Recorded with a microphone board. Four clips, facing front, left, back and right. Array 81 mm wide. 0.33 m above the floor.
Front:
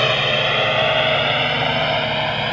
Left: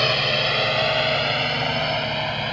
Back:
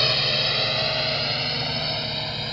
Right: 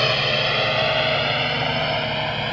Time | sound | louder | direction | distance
0.0 | a drone | right 1 dB, front 8 dB | 5° right | ?